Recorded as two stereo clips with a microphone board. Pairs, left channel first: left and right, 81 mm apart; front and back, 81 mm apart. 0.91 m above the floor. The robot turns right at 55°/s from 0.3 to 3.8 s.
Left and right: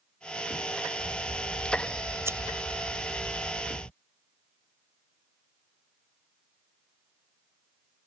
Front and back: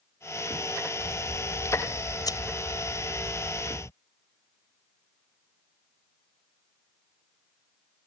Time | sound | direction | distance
1.0 | scissors | 105° right | ?